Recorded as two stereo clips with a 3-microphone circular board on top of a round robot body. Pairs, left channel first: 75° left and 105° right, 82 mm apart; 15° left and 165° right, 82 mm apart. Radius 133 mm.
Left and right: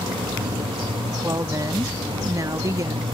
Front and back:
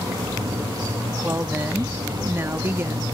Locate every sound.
0.0 s running water: 115° right
1.2 s a woman speaking: 120° right